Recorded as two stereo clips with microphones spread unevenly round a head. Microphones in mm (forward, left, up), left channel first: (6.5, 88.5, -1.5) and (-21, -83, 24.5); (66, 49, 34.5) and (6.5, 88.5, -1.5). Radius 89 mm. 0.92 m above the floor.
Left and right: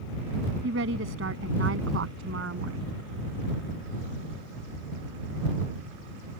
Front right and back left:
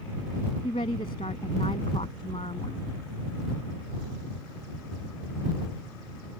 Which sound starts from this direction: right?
A woman speaking, at 0.6 s.